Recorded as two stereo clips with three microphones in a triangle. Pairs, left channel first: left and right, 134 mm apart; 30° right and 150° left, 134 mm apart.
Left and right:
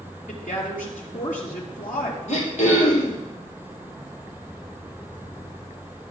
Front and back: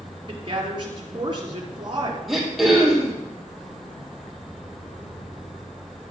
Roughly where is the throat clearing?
Ahead left.